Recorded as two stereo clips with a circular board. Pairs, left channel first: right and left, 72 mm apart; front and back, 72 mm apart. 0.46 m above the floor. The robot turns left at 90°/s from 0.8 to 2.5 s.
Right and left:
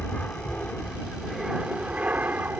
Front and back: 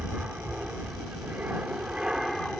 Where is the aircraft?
130° right; by 2.6 s 75° left.